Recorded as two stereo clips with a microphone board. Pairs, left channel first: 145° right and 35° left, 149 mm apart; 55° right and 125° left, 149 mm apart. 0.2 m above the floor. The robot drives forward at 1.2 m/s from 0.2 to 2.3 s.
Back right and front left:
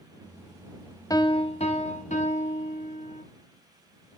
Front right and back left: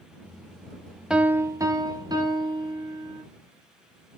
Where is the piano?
160° right, 0.7 m; by 3.2 s 175° right, 1.8 m.